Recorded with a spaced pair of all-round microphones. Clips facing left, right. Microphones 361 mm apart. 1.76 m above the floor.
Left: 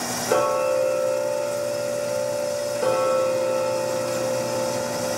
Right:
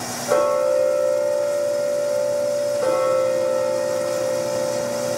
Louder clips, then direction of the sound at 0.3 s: Right 3 dB; 40° left (ahead or behind).